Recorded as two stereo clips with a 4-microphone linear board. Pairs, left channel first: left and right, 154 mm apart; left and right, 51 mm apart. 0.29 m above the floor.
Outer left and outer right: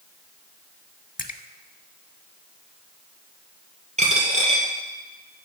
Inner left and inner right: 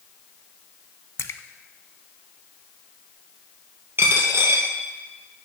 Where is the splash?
60° left (ahead or behind), 0.5 m.